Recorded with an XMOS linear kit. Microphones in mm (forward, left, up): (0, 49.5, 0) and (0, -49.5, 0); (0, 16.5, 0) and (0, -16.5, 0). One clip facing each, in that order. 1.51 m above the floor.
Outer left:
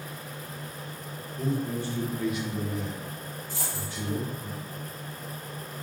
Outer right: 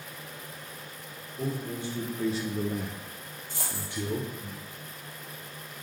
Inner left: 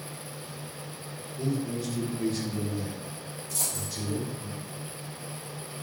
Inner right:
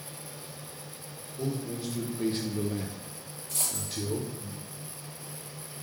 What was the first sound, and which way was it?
A man speaking, 10° right (ahead or behind).